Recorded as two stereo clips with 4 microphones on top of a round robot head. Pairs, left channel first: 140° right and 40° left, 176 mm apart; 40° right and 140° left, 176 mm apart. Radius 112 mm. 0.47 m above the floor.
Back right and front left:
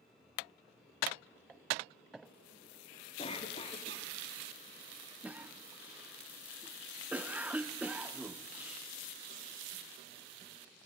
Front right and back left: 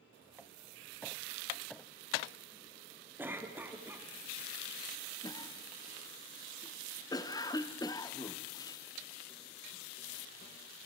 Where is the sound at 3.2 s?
150° right, 1.4 m.